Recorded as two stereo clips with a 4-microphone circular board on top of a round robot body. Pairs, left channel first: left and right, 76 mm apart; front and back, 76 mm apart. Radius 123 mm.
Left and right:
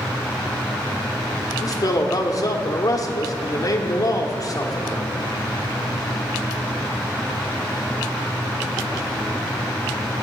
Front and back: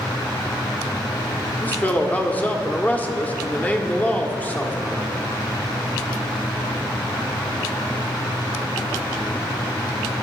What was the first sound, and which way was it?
A man speaking, 65° left.